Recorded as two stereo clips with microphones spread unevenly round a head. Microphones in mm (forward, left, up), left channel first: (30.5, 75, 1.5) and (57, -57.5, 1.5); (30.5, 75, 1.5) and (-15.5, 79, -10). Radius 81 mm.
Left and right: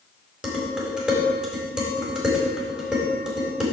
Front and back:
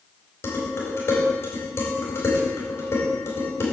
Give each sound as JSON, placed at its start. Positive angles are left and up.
{"t": 0.4, "sound": "dishes clattering", "azimuth_deg": 5, "distance_m": 4.5}